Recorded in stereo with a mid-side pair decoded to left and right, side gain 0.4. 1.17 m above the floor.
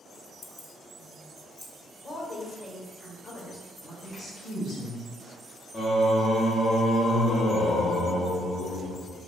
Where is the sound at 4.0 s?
45° left, 1.9 m.